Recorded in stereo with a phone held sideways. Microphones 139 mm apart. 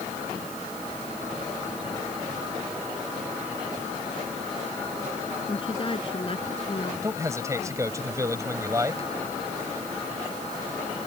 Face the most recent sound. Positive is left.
turn(degrees=-20)  # may be behind; listen again after turning